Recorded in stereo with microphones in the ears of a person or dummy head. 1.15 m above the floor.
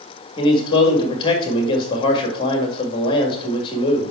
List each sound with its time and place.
0.4 s a man speaking: 30° left (ahead or behind), 1.9 m